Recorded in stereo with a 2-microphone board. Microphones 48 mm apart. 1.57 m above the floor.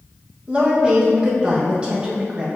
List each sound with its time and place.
0.5 s a woman speaking: 25° right (ahead or behind), 1.5 m